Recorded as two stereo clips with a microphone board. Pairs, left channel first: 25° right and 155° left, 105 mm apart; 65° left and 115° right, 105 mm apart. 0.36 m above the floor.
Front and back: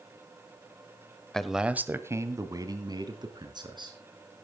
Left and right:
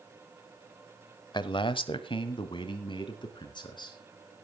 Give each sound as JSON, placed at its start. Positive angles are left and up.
{"t": 1.3, "sound": "a man speaking", "azimuth_deg": 60, "distance_m": 1.1}